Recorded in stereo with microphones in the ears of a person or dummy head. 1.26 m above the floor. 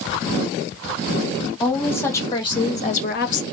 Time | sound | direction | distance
1.6 | a woman speaking | 10° left (ahead or behind) | 1.7 m